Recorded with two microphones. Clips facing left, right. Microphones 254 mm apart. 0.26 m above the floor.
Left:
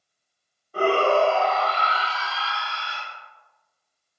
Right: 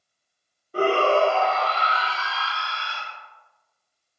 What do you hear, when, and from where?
0.7 s a shout: 20° right (ahead or behind), 1.4 m; by 3.0 s 30° left (ahead or behind), 1.7 m